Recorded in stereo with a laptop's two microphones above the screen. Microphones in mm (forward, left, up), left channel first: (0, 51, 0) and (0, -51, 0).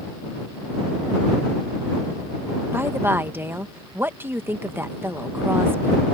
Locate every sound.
2.7 s a woman speaking: 20° right (ahead or behind)